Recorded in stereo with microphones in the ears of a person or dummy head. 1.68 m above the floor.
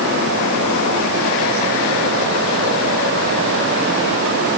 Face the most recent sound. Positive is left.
No sound to turn to.